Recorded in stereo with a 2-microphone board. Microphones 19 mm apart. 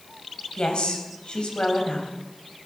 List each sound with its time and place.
0.6 s a woman speaking: 70° left (ahead or behind), 3.5 m